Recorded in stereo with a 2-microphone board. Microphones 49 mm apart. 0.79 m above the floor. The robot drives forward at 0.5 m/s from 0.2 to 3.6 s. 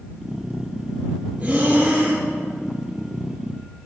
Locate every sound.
1.4 s breathing: 25° right (ahead or behind), 4 m; by 2.2 s 30° right (ahead or behind), 3.5 m